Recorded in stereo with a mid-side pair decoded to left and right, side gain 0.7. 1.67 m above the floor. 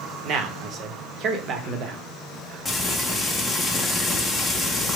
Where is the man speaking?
45° right, 0.8 m.